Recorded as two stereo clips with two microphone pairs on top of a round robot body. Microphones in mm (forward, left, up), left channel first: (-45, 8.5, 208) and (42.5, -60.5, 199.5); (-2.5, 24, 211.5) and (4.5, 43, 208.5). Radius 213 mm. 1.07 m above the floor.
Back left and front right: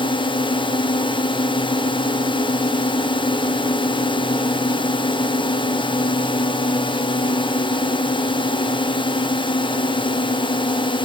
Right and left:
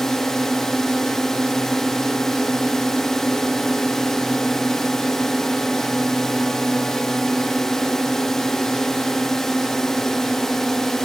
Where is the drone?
Straight behind.